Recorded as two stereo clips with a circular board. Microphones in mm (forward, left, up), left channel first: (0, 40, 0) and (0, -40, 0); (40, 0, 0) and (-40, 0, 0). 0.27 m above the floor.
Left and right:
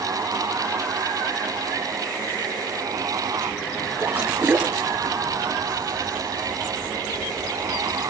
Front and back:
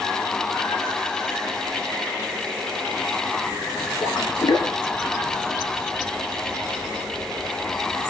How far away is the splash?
About 1.8 m.